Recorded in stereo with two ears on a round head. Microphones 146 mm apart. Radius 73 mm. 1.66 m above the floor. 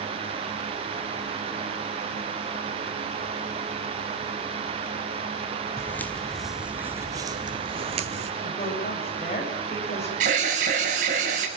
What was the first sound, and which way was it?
Footsteps, 15° left (ahead or behind).